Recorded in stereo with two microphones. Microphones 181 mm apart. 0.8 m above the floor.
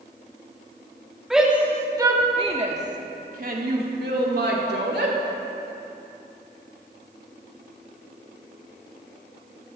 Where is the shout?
Centre (ahead or behind), 1.9 m; by 5.2 s 75° right (ahead or behind), 3 m.